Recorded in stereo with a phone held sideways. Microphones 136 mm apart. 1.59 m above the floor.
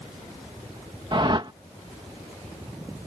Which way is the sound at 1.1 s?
35° right (ahead or behind).